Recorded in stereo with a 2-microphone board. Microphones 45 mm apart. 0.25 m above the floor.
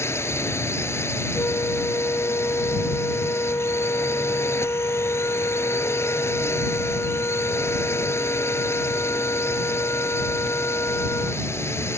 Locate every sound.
0.0 s a drone: 70° left (ahead or behind)
1.3 s a flute: 70° left (ahead or behind)